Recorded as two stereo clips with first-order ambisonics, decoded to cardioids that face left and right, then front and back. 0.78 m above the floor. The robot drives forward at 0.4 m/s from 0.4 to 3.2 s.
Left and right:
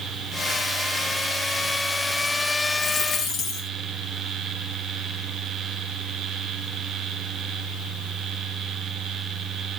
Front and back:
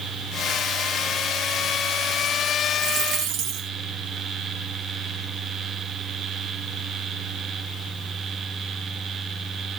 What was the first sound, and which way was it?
A dropped coin, 150° left.